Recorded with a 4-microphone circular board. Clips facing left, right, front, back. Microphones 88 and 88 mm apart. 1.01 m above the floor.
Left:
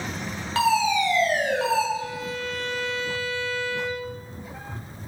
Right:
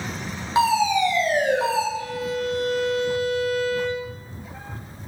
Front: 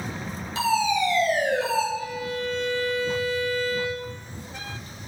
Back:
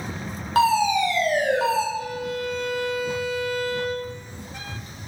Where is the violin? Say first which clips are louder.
Right 4 dB, back 2 dB; 155° left, 3 m.